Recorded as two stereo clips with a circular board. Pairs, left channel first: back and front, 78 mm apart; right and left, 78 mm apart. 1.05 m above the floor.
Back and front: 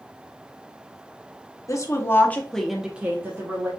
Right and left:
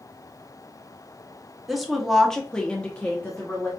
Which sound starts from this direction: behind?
A woman speaking, at 1.7 s.